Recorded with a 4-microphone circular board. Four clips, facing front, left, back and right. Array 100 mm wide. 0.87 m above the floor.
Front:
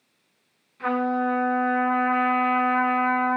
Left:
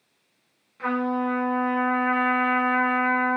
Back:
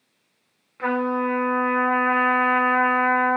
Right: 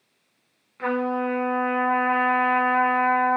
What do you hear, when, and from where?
0.8 s a trumpet: 155° right, 1.1 m